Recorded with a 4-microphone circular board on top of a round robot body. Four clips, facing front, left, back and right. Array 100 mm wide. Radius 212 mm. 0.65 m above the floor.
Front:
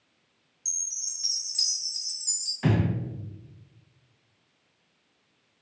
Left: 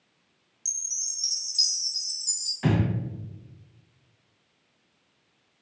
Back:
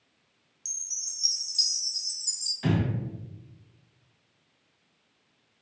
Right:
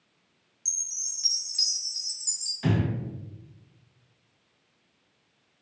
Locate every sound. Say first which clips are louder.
0.7 s a chime: left 1 dB, front 1 dB; 40° right, 1.2 m
2.6 s breathing: left 2 dB, front 2 dB; 35° left, 0.8 m